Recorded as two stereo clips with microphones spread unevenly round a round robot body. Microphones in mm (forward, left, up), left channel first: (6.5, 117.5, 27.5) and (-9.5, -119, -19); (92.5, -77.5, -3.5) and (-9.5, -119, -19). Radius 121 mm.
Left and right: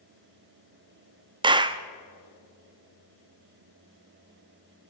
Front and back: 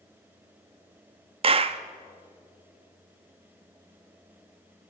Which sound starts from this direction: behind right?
A clap, at 1.4 s.